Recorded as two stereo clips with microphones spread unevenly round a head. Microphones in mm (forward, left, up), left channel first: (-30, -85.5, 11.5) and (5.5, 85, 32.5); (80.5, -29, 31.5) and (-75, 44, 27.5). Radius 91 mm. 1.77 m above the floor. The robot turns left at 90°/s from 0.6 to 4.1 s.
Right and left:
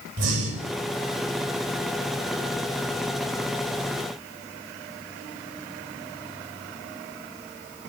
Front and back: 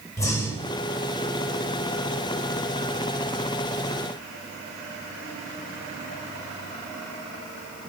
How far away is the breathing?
About 8 m.